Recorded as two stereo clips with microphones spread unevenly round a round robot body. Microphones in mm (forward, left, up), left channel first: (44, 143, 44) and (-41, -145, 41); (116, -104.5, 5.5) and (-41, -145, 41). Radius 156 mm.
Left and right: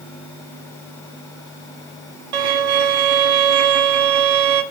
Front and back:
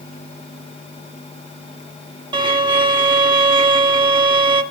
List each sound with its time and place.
2.3 s a violin: 115° right, 1.0 m